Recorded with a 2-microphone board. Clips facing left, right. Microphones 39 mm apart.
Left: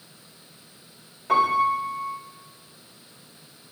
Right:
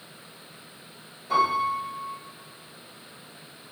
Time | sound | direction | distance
1.3 | a piano | 85° left | 2.5 m